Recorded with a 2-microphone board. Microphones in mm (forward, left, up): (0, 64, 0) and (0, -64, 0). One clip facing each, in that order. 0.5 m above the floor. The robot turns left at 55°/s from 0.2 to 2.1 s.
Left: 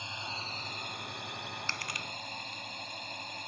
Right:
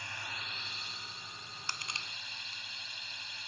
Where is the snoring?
No snoring in this recording.